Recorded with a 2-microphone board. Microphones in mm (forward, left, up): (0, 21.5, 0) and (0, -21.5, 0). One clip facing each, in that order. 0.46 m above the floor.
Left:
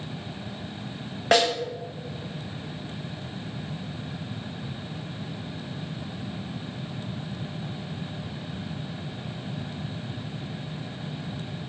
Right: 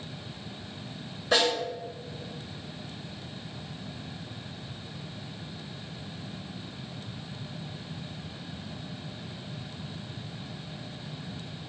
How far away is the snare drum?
About 1.2 m.